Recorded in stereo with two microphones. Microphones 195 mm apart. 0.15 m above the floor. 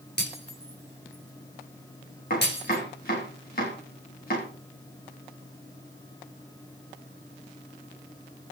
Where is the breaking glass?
55° left (ahead or behind), 9.5 m.